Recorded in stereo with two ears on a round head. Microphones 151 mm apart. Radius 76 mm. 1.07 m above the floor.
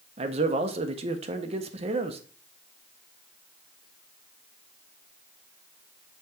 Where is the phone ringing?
No phone ringing in this recording.